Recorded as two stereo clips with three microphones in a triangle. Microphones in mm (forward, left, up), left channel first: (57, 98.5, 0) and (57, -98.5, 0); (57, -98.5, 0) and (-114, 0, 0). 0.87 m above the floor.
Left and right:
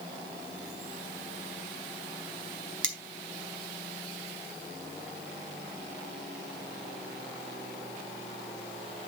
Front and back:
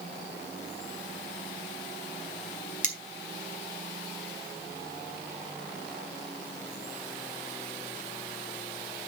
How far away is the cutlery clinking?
About 2.5 m.